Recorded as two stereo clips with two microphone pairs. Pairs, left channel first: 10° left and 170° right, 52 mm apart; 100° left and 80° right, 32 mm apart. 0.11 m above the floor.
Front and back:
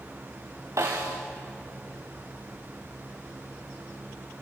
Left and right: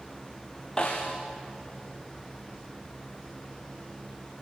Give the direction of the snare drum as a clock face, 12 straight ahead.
6 o'clock.